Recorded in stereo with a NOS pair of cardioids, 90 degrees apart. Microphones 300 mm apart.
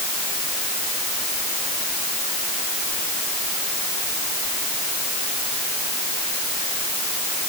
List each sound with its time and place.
Only background noise.